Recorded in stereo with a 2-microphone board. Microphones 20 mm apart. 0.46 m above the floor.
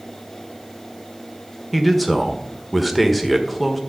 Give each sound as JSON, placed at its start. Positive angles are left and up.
{"t": 1.7, "sound": "a man speaking", "side_deg": 0, "distance_m": 1.4}